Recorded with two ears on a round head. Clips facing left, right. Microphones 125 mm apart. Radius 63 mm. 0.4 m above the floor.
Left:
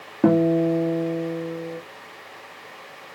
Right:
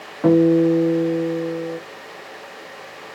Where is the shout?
No shout in this recording.